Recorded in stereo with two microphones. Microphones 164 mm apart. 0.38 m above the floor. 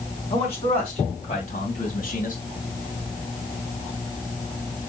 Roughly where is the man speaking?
Left.